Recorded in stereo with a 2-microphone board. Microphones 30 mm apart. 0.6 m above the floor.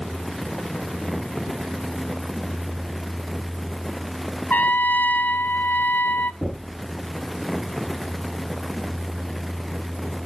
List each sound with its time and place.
4.5 s a trumpet: 75° left (ahead or behind), 1.0 m
6.4 s knocking: 20° left (ahead or behind), 6 m